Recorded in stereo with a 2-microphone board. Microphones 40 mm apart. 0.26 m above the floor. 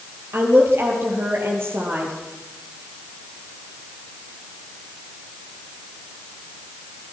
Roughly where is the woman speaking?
Right.